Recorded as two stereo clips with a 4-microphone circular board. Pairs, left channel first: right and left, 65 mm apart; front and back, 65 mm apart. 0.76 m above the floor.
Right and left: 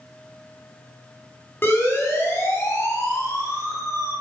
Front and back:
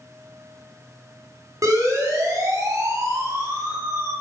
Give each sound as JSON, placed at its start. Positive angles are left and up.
{"t": 1.6, "sound": "a siren", "azimuth_deg": -145, "distance_m": 6.0}